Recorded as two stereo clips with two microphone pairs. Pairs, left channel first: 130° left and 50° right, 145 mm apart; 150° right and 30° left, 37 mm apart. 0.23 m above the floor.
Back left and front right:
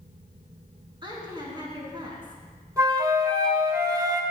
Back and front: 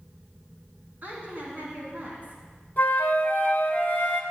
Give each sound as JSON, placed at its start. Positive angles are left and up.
{"t": 1.0, "sound": "a woman speaking", "azimuth_deg": 0, "distance_m": 2.5}
{"t": 2.8, "sound": "a flute", "azimuth_deg": -115, "distance_m": 1.2}